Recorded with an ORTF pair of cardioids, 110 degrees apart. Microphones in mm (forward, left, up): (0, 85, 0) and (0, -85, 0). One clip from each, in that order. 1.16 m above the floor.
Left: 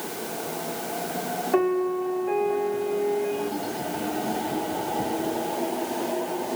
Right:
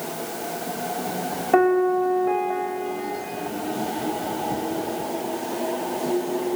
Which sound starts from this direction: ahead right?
A piano, at 1.5 s.